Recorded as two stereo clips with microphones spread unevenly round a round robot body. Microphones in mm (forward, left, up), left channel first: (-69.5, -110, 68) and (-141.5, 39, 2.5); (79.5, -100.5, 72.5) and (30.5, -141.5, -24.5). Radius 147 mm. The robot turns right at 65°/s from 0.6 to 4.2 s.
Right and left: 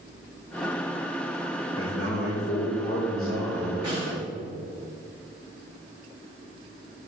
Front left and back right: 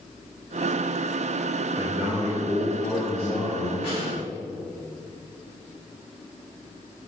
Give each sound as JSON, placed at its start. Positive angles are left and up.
{"t": 1.8, "sound": "a man speaking", "azimuth_deg": -75, "distance_m": 3.0}
{"t": 3.8, "sound": "a snare drum", "azimuth_deg": 55, "distance_m": 3.5}